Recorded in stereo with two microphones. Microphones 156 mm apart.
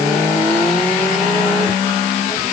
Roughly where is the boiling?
I don't hear boiling.